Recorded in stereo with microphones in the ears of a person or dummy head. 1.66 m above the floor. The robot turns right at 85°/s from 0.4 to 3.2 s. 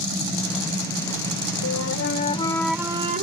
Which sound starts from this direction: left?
A flute, at 1.6 s.